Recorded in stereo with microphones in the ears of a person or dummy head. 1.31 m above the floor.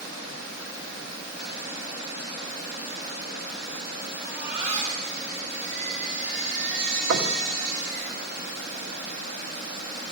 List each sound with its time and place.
4.2 s a baby crying: 50° right (ahead or behind), 4.5 m
7.1 s knocking: 70° right (ahead or behind), 1.4 m